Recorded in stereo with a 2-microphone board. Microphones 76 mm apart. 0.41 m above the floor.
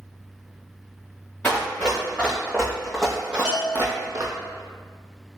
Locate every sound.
1.4 s running footsteps: 20° left (ahead or behind), 1.9 m; by 4.3 s 55° right (ahead or behind), 0.7 m
3.5 s a bell: 15° right (ahead or behind), 1.2 m